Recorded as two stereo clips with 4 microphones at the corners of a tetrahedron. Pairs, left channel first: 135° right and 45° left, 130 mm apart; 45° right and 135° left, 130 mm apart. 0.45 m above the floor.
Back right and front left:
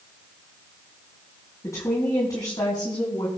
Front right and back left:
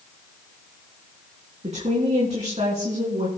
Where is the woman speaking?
160° left, 4 m; by 3.3 s 175° left, 4 m.